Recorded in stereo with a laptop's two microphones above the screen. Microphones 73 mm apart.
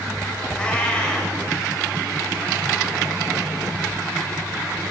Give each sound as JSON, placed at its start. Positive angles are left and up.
{"t": 0.5, "sound": "a cat meowing", "side_deg": 15, "distance_m": 1.3}